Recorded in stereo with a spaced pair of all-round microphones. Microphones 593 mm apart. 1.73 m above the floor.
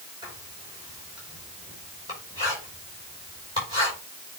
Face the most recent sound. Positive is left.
turn(degrees=-5)  # may be behind; listen again after turning